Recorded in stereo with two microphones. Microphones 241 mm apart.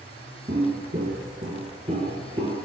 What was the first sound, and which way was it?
Footsteps, 35° right (ahead or behind).